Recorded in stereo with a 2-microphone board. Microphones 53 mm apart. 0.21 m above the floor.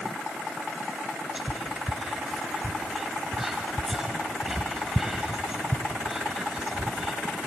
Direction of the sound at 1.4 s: 10° right (ahead or behind).